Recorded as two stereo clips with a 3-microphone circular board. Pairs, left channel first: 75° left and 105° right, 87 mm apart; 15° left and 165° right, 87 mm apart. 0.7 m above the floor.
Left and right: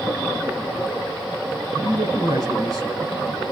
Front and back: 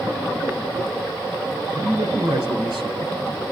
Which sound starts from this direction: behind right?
A man speaking, at 1.7 s.